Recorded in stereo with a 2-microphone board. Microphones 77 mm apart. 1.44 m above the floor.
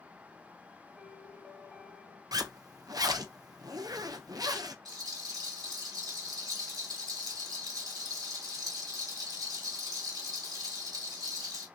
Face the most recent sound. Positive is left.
turn(degrees=-70)  # may be behind; listen again after turning